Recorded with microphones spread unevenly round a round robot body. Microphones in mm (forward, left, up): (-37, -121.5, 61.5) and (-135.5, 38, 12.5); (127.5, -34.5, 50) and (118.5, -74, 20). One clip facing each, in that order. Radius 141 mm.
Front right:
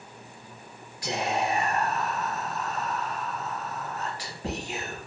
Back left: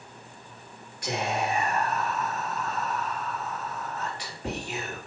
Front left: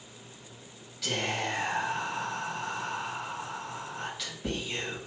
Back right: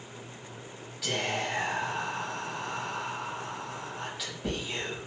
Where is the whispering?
105° right, 1.9 m.